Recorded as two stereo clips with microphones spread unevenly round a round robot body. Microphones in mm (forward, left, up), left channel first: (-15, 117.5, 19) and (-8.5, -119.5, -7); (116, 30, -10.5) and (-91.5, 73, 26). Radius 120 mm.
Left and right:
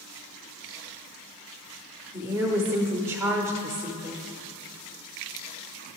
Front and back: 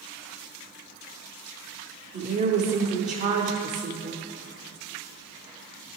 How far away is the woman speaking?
About 0.8 m.